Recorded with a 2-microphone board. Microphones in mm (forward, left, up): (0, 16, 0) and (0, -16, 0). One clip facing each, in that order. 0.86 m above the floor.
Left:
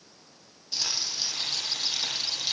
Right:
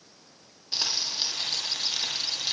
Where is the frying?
35° right (ahead or behind), 7.5 m.